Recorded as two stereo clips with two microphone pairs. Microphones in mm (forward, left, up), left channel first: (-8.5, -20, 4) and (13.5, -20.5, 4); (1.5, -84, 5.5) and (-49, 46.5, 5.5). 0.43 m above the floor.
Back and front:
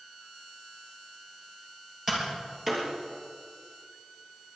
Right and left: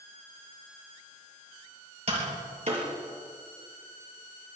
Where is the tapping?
70° left, 5.5 m.